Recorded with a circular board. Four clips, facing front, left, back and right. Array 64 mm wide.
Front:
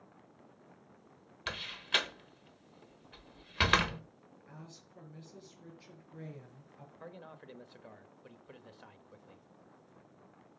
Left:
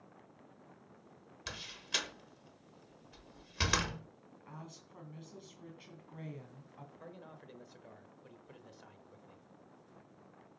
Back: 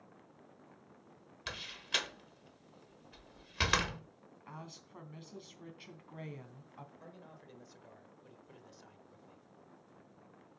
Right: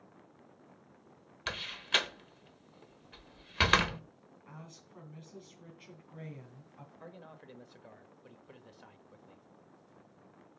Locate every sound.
1.5 s a door slam: 60° right, 0.9 m
4.5 s a woman speaking: 170° left, 3 m
7.0 s a man speaking: 15° right, 1.2 m